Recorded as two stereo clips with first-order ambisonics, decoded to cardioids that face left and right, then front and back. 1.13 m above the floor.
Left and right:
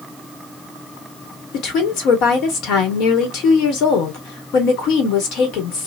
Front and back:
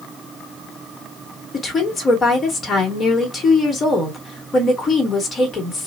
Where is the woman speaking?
70° left, 1.4 m.